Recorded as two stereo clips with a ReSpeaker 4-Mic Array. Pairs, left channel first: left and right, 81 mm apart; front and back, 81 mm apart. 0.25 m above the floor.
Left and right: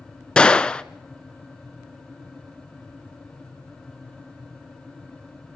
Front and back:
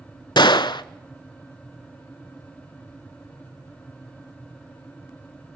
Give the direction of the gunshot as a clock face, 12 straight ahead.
12 o'clock.